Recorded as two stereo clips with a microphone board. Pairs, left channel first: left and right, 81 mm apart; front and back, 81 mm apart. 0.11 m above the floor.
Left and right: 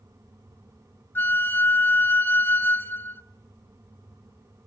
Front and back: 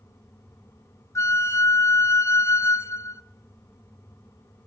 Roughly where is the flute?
Ahead left.